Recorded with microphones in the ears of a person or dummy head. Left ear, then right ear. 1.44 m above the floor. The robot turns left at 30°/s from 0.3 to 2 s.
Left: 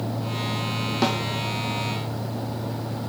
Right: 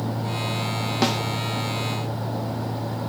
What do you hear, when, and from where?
1.0 s a snare drum: 15° right (ahead or behind), 0.6 m; by 1.2 s 20° right (ahead or behind), 0.6 m